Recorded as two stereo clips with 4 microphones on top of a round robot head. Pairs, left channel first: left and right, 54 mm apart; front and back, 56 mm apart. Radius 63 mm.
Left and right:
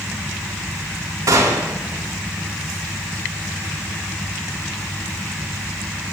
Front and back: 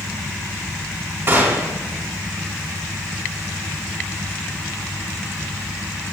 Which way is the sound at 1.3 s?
125° right.